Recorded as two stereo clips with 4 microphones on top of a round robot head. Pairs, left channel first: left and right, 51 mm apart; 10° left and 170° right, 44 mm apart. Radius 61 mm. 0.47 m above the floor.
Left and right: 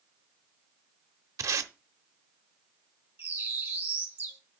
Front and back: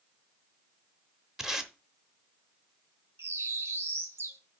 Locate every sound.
1.4 s tape being pulled: 85° right, 0.9 m
3.2 s a bird: 140° right, 1.6 m